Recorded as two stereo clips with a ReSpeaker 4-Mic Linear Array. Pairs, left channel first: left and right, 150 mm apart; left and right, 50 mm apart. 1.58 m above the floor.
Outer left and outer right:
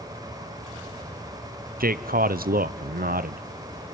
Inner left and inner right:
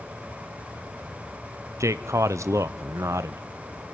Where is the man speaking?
80° right, 0.8 m.